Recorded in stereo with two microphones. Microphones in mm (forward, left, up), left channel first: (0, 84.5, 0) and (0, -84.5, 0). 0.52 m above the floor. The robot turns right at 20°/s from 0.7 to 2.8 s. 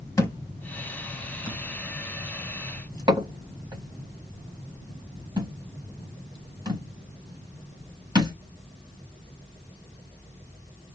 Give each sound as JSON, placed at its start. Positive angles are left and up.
{"t": 0.2, "sound": "a thud", "side_deg": 20, "distance_m": 1.4}